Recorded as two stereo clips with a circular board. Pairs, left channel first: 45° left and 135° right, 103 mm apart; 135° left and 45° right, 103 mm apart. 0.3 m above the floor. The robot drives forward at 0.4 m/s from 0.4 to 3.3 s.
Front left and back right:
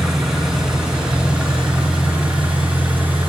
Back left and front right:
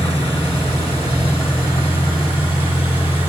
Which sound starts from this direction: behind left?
An engine running, at 0.0 s.